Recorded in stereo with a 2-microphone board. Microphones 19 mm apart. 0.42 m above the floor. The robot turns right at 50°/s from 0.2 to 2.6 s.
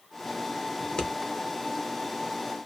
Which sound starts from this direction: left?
Scissors, at 0.8 s.